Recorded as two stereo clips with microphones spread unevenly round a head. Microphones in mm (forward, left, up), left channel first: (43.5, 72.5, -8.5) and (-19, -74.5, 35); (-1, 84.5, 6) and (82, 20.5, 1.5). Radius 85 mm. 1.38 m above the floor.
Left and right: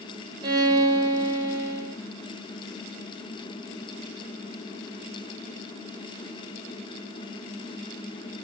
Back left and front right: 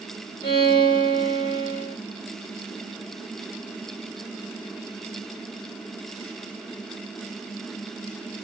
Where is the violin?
165° right, 1.3 m.